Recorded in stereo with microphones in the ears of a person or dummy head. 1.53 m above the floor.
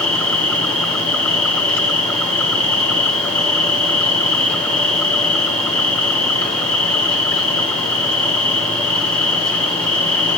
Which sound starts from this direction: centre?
An insect, at 0.0 s.